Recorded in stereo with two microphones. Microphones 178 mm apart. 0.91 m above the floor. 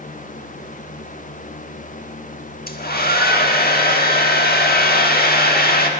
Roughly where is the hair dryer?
Left.